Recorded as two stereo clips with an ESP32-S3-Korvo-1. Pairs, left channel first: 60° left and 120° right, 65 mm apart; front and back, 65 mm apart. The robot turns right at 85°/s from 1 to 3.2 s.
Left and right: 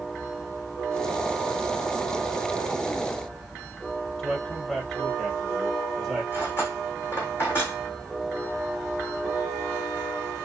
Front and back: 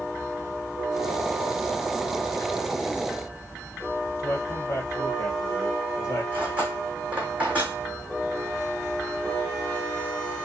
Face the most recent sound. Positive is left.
turn(degrees=110)